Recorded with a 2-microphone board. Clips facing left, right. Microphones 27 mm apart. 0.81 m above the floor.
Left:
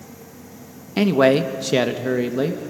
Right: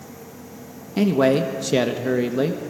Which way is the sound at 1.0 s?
30° left (ahead or behind).